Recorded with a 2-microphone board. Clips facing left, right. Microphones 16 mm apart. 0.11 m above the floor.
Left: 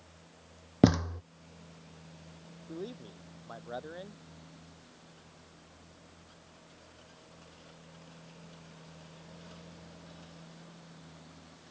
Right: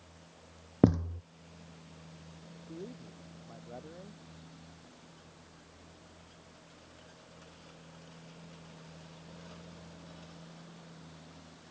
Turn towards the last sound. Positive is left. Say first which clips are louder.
# left 4 dB
turn(degrees=70)  # may be behind; listen again after turning